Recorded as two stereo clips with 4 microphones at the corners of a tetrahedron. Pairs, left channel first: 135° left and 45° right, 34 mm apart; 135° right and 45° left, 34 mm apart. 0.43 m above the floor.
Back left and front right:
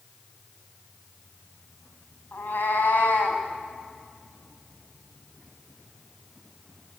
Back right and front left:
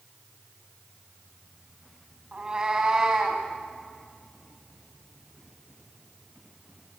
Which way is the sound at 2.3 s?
110° left.